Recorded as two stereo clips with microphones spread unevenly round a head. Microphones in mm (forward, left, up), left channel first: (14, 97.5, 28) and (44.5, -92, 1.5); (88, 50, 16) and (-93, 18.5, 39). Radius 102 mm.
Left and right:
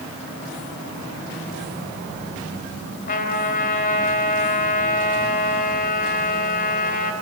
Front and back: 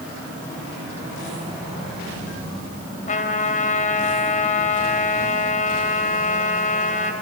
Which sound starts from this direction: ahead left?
A trumpet, at 3.1 s.